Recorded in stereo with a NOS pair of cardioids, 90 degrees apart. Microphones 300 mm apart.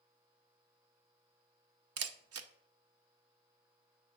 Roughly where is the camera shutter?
Ahead right.